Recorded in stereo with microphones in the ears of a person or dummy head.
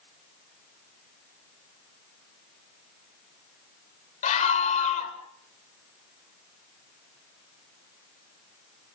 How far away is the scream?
About 5.5 m.